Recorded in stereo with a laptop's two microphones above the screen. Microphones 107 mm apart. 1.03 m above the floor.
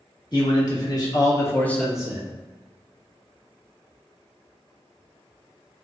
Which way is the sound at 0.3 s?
40° left (ahead or behind).